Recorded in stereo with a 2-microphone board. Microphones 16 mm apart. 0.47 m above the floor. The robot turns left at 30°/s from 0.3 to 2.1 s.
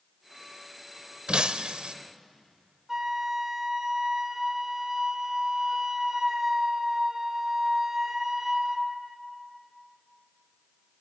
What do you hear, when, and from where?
1.3 s breaking glass: 70° right (ahead or behind), 0.7 m
2.9 s a flute: 30° right (ahead or behind), 1.3 m